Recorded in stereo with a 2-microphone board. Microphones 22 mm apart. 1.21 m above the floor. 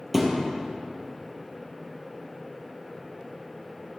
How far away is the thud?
About 2.5 m.